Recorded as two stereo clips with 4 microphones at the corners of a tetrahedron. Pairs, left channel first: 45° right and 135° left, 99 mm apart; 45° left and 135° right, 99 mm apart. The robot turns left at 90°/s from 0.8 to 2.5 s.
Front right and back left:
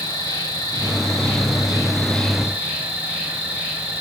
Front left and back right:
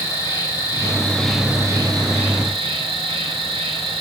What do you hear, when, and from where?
0.0 s an insect: straight ahead, 1.7 m; by 4.0 s 150° right, 1.7 m